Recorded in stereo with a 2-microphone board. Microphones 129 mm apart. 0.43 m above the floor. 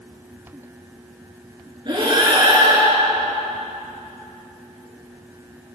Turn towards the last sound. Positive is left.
turn(degrees=-35)  # may be behind; listen again after turning